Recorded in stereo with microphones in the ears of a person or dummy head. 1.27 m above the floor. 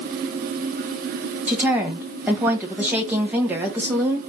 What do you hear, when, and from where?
1.5 s a woman speaking: 15° right (ahead or behind), 1.3 m